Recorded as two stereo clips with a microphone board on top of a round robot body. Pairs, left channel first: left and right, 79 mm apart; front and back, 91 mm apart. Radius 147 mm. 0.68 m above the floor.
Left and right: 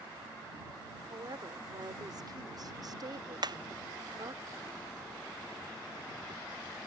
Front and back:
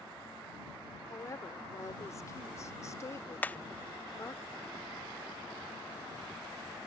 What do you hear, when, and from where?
1.1 s a woman speaking: 55° right
3.4 s hammering: 70° right